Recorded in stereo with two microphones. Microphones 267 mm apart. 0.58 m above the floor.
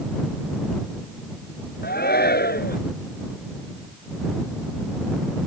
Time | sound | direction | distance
1.8 | a shout | 40° left (ahead or behind) | ?